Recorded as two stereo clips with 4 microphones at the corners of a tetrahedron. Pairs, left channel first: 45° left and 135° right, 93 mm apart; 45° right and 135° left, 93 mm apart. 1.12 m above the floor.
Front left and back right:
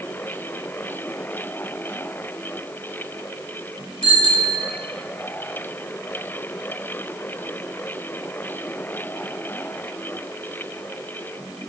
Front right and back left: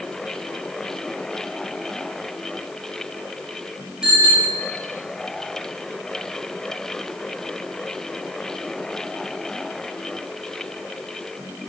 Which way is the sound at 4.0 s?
55° left.